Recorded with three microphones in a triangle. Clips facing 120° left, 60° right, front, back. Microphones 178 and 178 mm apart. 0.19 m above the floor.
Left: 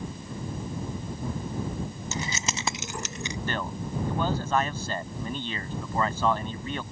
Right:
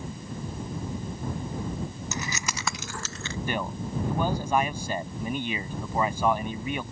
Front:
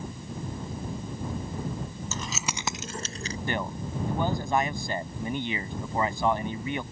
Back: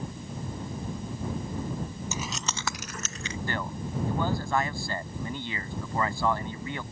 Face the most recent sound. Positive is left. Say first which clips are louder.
# right 3 dB, front 3 dB
turn(degrees=-10)